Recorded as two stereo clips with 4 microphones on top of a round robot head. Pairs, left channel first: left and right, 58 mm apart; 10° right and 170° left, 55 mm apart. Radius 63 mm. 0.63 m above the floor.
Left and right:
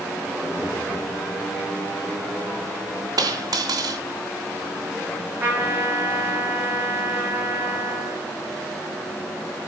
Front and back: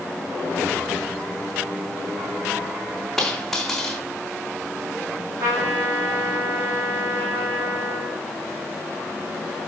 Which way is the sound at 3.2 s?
95° right.